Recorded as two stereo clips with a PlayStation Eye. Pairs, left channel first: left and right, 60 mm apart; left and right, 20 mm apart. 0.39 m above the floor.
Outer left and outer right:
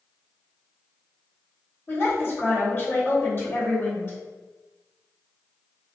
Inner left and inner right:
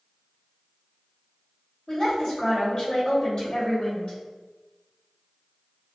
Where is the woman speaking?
40° left (ahead or behind), 1.7 m.